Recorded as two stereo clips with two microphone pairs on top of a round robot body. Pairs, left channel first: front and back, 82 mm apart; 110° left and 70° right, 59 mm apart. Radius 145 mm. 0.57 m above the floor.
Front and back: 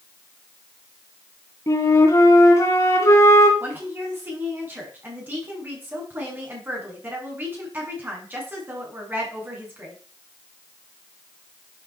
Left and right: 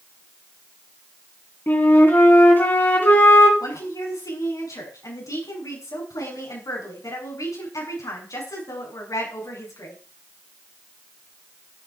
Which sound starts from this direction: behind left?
A woman speaking, at 3.6 s.